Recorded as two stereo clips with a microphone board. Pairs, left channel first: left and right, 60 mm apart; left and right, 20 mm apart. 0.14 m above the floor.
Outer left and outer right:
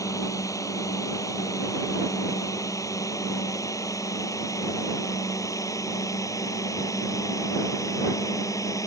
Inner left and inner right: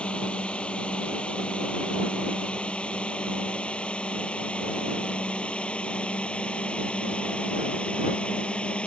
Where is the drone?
65° left (ahead or behind).